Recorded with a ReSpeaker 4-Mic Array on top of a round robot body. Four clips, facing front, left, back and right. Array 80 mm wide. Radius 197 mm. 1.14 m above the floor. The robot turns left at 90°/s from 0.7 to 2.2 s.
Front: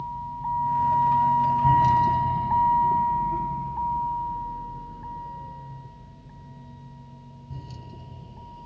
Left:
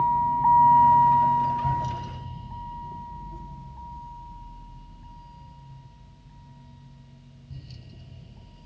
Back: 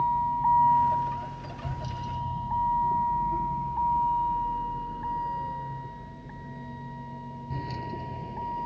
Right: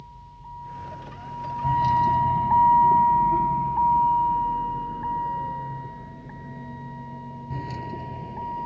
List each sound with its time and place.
0.0 s a vehicle: 115° left; by 8.7 s 125° right